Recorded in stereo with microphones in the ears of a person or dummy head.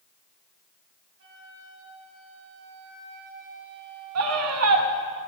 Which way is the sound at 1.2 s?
65° right (ahead or behind).